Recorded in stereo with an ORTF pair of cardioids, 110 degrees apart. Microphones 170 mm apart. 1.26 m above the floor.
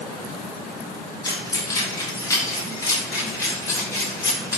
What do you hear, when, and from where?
1.2 s keys jangling: 25° left, 3.5 m; by 4.6 s 15° left, 5 m